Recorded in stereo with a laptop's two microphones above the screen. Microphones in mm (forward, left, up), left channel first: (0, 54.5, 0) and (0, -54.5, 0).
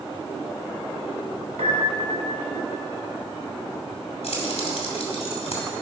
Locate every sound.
1.6 s a piano: 85° right, 1.9 m
4.2 s keys jangling: 75° left (ahead or behind), 2.5 m